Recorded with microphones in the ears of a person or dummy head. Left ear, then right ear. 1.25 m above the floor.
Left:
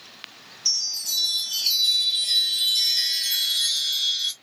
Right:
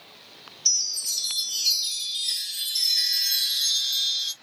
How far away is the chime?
About 0.8 m.